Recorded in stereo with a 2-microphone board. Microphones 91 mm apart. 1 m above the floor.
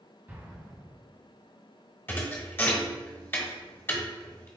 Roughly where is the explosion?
Right.